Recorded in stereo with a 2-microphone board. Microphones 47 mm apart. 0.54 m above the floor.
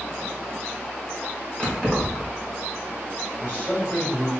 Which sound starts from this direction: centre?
Keys jangling, at 1.6 s.